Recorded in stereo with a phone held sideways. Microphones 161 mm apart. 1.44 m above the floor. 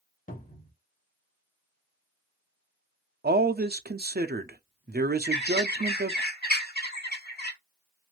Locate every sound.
0.3 s a cupboard door: 55° left (ahead or behind), 1.3 m
3.2 s a man speaking: 75° right (ahead or behind), 0.6 m
5.2 s a bird: 85° left, 1.1 m